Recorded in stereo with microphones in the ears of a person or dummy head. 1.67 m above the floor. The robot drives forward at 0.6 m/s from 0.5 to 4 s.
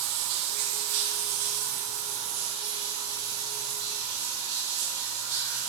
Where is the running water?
50° right (ahead or behind), 0.8 m; by 5.7 s 20° right (ahead or behind), 2 m.